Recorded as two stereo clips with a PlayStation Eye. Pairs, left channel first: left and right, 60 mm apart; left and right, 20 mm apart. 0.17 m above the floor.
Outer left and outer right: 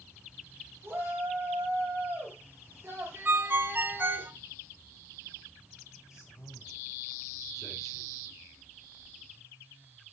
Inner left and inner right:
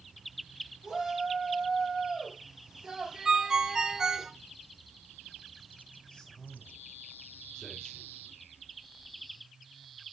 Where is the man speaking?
60° left (ahead or behind), 4.5 m.